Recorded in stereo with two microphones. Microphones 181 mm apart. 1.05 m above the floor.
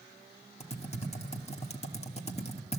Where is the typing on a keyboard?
35° left (ahead or behind), 1.5 m.